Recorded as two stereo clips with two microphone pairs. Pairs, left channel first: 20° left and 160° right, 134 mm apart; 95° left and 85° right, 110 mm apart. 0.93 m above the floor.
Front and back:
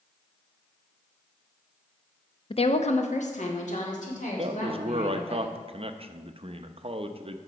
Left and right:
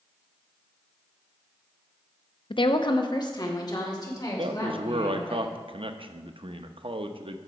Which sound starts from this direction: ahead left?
A woman speaking, at 2.5 s.